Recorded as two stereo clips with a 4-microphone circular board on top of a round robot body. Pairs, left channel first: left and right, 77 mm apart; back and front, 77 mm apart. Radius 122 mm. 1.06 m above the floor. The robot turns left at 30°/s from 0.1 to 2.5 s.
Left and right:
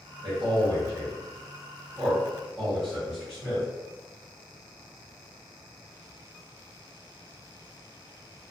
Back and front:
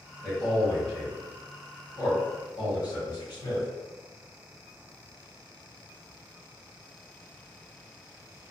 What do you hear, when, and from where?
0.2 s a man speaking: 110° right, 1.7 m; by 3.7 s 175° right, 1.7 m